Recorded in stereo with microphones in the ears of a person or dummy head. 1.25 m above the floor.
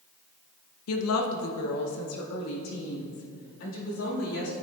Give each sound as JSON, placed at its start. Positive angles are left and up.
{"t": 0.9, "sound": "a woman speaking", "side_deg": 85, "distance_m": 0.6}